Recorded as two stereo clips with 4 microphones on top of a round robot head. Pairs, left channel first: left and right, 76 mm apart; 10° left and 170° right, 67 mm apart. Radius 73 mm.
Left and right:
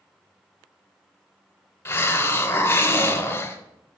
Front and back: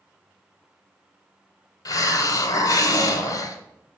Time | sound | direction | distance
1.9 | a hiss | 30° left | 0.9 m